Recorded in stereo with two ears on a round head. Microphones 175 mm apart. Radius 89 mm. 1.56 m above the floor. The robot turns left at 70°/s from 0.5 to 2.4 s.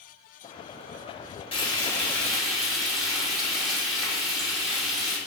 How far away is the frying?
About 1.3 m.